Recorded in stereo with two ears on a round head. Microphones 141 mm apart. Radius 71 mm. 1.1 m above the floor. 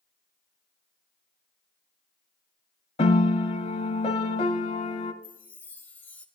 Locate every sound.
3.0 s a piano: 35° left (ahead or behind), 1.1 m
5.2 s a chime: 10° left (ahead or behind), 1.4 m